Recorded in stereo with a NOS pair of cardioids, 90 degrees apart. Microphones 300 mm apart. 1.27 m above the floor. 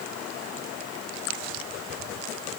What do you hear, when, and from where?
Only background noise.